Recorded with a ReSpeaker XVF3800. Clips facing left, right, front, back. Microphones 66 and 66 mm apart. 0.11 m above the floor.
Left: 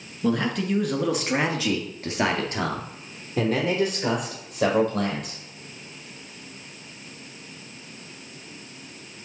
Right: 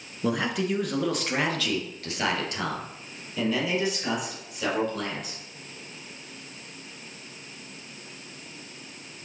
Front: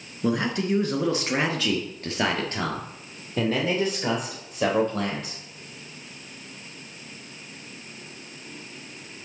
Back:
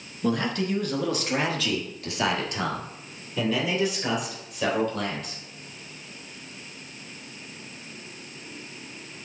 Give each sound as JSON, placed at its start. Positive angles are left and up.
{"t": 0.2, "sound": "a man speaking", "azimuth_deg": -40, "distance_m": 1.3}